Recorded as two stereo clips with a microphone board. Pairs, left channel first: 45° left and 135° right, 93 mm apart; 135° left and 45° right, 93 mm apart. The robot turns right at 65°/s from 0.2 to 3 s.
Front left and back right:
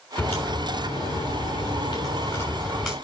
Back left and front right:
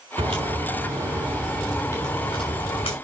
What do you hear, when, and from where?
0.2 s a crack: 40° right, 6 m; by 3.0 s 140° left, 6 m